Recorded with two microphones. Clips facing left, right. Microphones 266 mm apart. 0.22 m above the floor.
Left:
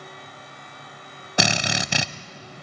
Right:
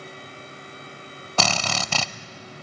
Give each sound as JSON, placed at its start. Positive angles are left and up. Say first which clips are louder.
{"t": 1.4, "sound": "a drill", "louder": "left 2 dB", "side_deg": 15, "distance_m": 0.6}